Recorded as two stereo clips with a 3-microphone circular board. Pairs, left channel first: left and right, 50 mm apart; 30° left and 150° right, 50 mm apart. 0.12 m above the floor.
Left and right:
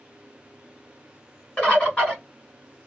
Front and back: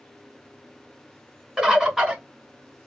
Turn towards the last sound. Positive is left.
turn(degrees=140)